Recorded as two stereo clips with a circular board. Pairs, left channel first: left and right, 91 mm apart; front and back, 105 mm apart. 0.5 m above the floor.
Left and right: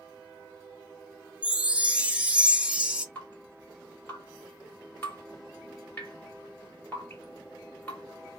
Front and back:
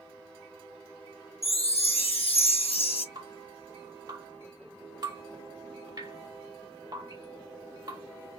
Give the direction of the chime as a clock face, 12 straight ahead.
12 o'clock.